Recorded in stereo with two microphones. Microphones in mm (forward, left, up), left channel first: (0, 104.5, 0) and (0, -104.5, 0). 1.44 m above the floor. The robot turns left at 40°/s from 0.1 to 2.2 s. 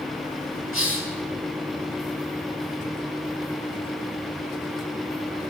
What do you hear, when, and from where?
0.7 s a hiss: 80° left, 5 m; by 1.1 s 70° left (ahead or behind), 5 m